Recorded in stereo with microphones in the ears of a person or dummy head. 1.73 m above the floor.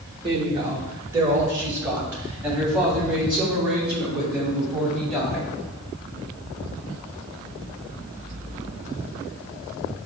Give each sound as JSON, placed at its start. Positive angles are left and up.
{"t": 0.2, "sound": "a woman speaking", "side_deg": -25, "distance_m": 1.7}